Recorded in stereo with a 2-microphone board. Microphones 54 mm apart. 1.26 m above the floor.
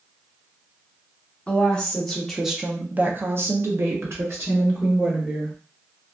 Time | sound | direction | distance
1.5 | a woman speaking | 15° left (ahead or behind) | 1.0 m